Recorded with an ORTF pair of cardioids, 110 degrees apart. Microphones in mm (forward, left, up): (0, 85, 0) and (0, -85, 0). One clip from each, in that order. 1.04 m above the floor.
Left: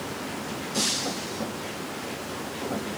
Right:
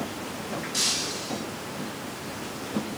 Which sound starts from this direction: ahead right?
Breaking glass, at 0.7 s.